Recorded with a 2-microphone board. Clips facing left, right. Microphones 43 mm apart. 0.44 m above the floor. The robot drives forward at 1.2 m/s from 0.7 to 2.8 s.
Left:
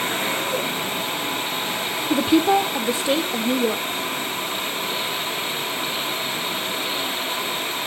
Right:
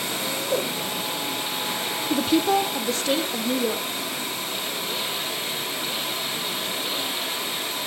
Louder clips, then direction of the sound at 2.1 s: Left 4 dB; 20° left (ahead or behind).